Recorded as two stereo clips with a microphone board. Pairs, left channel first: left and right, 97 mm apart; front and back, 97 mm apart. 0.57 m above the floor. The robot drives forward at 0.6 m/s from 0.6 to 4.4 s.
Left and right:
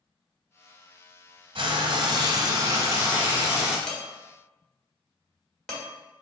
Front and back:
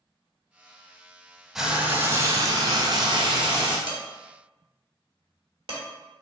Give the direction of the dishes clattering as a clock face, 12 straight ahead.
6 o'clock.